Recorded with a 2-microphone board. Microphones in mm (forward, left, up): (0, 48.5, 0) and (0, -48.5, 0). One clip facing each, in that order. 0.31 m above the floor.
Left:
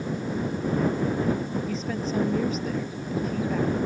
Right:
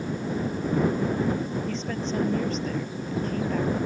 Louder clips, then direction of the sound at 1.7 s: Left 1 dB; 5° left (ahead or behind).